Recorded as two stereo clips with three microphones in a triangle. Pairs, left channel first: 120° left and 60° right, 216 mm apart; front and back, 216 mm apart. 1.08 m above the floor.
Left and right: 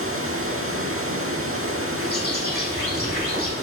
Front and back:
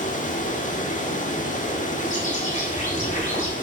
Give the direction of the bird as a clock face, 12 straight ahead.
2 o'clock.